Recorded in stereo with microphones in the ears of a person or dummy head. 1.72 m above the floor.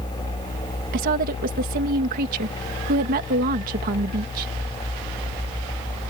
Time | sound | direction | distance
0.9 | a woman speaking | 45° right (ahead or behind) | ?